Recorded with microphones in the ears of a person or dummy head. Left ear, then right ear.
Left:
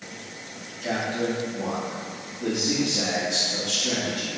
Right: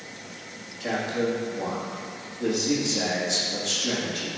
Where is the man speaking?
60° right (ahead or behind), 2.5 m.